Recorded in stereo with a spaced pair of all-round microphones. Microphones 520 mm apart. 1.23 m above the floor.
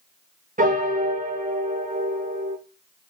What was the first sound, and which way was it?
A piano, 15° right (ahead or behind).